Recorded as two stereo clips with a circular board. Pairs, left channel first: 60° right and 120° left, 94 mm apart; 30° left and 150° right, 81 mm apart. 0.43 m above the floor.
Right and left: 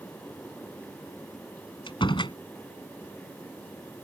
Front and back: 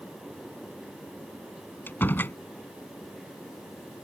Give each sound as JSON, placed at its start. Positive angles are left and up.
{"t": 1.9, "sound": "a door slam", "azimuth_deg": -35}